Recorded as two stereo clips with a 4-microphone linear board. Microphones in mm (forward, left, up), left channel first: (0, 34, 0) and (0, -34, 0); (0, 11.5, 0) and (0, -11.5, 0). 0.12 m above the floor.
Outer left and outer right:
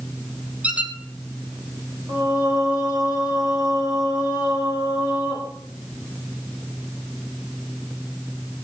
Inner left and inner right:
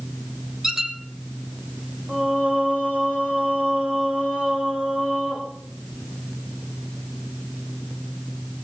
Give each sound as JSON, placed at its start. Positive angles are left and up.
{"t": 0.6, "sound": "a squeak", "side_deg": -15, "distance_m": 1.8}
{"t": 2.1, "sound": "singing", "side_deg": -75, "distance_m": 6.5}